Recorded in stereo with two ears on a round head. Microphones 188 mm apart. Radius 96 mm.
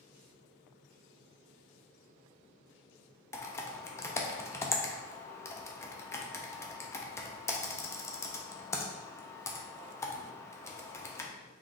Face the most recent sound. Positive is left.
turn(degrees=15)  # may be behind; listen again after turning